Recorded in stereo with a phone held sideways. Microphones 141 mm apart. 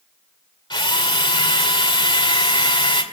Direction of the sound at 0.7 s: 35° left (ahead or behind).